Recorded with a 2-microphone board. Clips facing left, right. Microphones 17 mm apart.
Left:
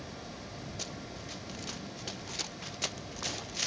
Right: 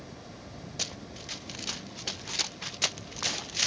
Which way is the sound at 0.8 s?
35° right (ahead or behind).